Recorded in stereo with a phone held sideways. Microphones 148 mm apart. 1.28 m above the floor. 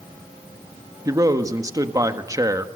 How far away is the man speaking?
About 1.6 m.